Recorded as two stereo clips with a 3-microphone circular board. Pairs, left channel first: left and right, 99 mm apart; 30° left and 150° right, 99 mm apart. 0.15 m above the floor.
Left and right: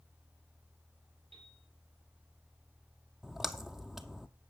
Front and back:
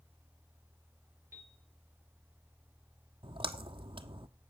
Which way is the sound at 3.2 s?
175° right.